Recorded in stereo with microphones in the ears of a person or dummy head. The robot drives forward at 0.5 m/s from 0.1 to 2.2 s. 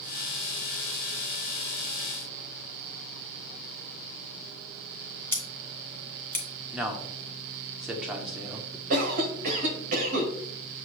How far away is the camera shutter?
I don't hear a camera shutter.